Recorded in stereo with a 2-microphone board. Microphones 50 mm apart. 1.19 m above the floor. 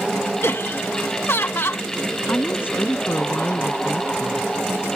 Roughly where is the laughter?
Left.